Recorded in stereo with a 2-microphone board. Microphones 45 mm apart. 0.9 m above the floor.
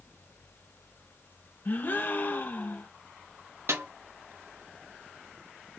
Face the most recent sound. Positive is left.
turn(degrees=-70)  # may be behind; listen again after turning